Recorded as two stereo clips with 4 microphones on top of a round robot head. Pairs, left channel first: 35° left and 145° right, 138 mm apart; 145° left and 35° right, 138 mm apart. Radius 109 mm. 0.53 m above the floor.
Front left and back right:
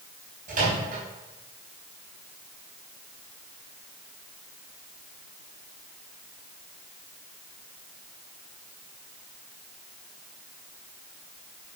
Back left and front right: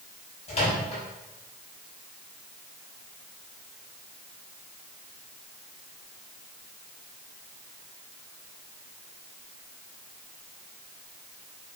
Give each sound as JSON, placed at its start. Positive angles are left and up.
{"t": 0.5, "sound": "a microwave", "azimuth_deg": -170, "distance_m": 4.0}